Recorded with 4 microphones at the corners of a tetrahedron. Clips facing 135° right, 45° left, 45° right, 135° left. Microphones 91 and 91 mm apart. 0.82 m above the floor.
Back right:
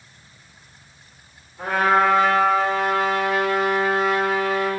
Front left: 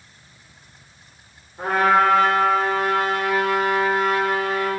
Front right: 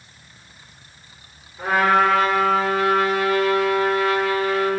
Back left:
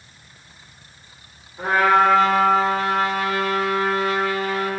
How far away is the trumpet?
About 1.5 m.